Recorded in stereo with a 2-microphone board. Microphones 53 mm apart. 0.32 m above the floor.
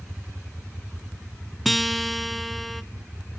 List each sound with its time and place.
1.6 s a guitar: centre (ahead or behind), 0.7 m